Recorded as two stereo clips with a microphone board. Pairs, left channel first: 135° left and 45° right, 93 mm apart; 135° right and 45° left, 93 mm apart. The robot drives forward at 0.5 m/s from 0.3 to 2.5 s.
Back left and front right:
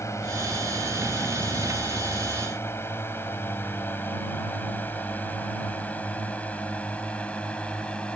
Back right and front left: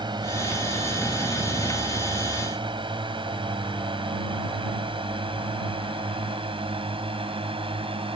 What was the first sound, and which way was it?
A drone, 80° left.